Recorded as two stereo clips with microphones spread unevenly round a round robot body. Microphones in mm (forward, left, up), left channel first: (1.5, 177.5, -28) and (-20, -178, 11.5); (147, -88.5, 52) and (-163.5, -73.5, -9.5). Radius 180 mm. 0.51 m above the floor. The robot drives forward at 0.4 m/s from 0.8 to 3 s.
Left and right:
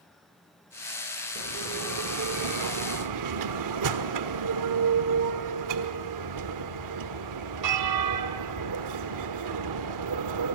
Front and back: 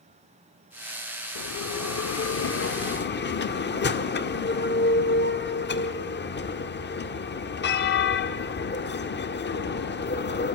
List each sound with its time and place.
1.4 s a bell: 40° right, 1.7 m; by 10.5 s 60° right, 1.4 m